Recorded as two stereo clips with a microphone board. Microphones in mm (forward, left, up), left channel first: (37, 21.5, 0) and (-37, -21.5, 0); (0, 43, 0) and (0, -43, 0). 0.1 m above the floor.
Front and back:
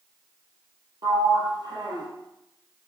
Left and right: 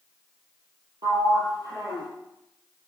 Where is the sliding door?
125° right, 3.5 m.